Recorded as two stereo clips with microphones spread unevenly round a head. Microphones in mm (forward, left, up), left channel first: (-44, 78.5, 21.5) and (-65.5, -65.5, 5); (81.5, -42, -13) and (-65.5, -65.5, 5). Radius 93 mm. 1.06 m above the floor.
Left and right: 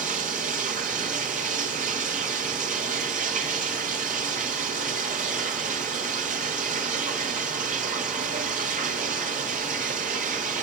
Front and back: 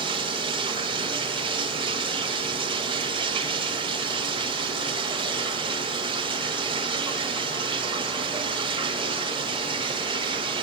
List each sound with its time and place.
0.0 s running water: 125° right, 1.3 m